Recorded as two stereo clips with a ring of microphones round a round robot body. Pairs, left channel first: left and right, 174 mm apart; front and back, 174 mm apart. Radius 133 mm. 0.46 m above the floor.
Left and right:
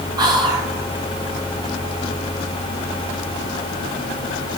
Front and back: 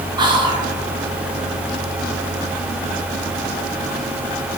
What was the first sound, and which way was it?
Whispering, 135° right.